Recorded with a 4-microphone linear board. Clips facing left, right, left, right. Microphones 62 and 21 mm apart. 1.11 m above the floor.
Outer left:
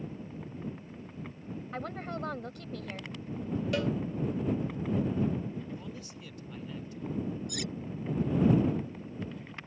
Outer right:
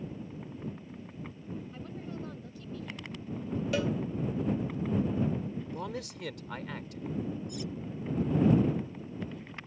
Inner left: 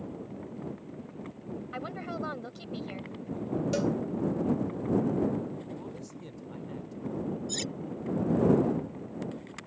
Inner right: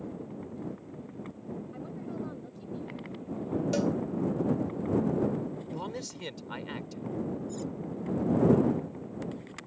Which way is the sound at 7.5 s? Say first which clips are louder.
Outer left 1 dB, inner left 2 dB; 75° left (ahead or behind).